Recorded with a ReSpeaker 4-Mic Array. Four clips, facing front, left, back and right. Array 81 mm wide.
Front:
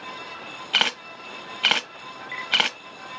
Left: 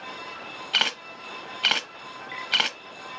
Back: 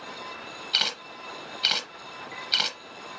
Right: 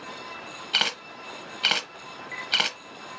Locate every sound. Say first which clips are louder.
0.7 s a camera shutter: left 1 dB, front 8 dB; 10° left, 0.6 m